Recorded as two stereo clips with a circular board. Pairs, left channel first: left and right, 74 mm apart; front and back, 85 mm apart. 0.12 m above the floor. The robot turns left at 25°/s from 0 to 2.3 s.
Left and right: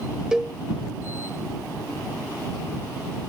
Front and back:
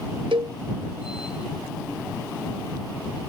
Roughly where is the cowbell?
Behind.